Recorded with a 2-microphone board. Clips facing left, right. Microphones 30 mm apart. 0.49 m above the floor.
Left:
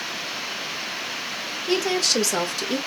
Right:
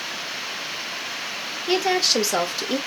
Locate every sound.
1.7 s a woman speaking: 20° right (ahead or behind), 1.4 m